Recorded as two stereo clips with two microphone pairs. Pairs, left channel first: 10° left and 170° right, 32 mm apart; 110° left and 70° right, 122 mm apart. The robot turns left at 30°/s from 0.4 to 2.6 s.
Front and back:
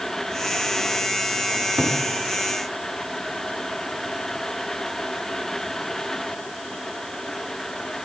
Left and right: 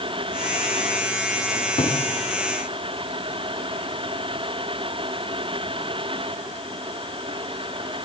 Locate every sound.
1.6 s a cupboard door: 155° left, 5 m; by 2.0 s 140° left, 5 m